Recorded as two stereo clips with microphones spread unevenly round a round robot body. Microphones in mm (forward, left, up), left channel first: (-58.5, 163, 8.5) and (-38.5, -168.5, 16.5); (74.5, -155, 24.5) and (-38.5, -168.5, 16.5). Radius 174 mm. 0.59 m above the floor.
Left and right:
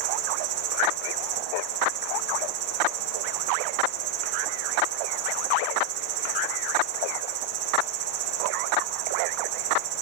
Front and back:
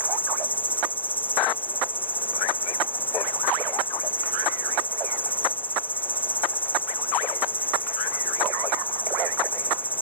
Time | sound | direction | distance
0.0 | an insect | 65° right | ?